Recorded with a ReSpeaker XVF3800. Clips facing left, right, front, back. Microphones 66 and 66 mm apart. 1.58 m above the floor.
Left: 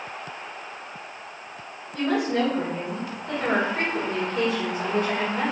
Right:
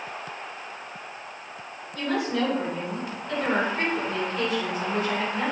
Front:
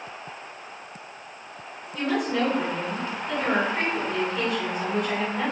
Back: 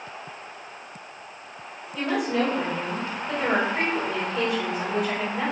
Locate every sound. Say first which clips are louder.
1.9 s a woman speaking: left 3 dB, even; 95° left, 2 m